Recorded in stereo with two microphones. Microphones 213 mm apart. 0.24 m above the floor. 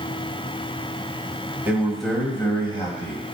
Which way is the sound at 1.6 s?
10° right (ahead or behind).